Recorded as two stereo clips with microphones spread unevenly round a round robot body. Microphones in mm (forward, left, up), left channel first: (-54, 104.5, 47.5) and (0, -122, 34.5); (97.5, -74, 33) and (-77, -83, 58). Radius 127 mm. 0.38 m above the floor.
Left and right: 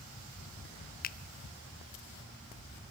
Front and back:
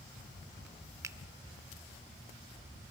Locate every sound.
1.0 s a finger snap: 110° left, 0.7 m